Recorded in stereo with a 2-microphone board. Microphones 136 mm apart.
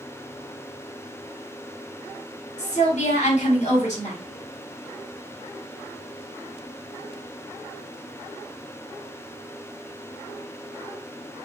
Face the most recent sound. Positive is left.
turn(degrees=50)  # may be behind; listen again after turning